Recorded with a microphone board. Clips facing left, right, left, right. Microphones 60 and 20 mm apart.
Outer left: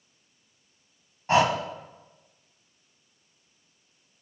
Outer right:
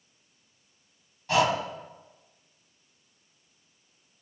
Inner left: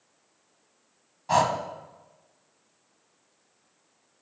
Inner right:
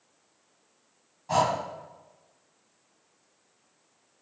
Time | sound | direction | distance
1.3 | breathing | 30° left (ahead or behind) | 1.0 m